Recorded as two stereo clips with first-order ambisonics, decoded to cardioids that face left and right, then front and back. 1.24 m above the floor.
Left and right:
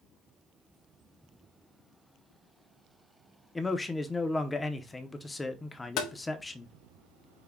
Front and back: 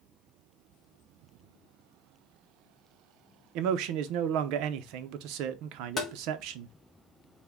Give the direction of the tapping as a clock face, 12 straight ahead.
10 o'clock.